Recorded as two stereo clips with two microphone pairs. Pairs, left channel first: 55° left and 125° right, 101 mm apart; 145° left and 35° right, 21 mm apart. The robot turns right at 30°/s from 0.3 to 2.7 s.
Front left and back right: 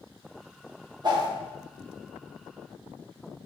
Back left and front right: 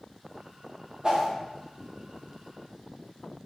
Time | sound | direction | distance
1.0 | a whoosh | 95° right | 0.6 m